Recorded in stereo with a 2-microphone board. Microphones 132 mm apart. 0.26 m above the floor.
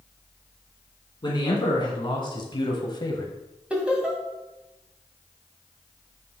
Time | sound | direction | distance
1.2 | a man speaking | 35° left (ahead or behind) | 2.5 m
3.7 | laughter | 10° right (ahead or behind) | 2 m